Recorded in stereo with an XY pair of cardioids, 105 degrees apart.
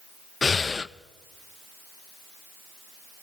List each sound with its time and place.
0.4 s breathing: 30° left, 0.6 m